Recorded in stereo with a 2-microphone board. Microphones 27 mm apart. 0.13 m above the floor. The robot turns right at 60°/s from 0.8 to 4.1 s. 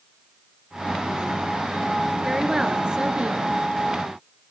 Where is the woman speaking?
170° right, 1.7 m; by 3.5 s 100° right, 1.7 m.